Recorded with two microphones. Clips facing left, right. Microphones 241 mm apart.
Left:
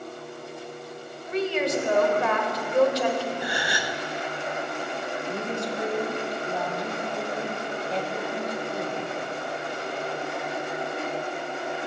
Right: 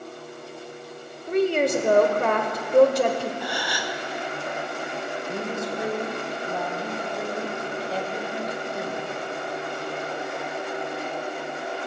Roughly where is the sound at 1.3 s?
Right.